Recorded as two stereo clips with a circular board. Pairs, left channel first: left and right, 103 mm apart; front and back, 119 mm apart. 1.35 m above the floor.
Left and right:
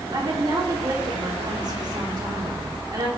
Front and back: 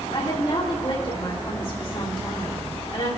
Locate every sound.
0.1 s a woman speaking: 45° right, 3 m